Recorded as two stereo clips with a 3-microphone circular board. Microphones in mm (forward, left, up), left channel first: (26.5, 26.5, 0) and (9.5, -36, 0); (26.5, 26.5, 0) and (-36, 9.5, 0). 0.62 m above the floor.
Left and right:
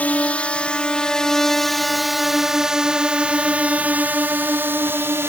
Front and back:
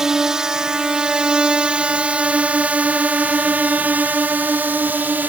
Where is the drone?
120° left; by 5.3 s 120° right.